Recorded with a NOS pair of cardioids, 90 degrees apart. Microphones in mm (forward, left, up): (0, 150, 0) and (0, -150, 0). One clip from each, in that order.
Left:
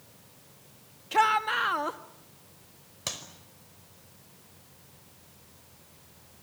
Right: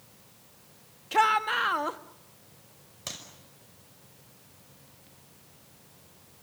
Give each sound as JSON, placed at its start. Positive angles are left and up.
{"t": 1.1, "sound": "a shout", "azimuth_deg": -5, "distance_m": 1.7}
{"t": 3.1, "sound": "a clap", "azimuth_deg": 25, "distance_m": 5.0}